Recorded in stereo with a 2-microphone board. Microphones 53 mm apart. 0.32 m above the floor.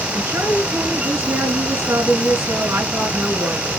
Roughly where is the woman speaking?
Right.